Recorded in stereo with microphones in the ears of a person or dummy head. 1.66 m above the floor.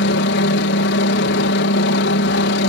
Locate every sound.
0.0 s a helicopter: 60° left (ahead or behind)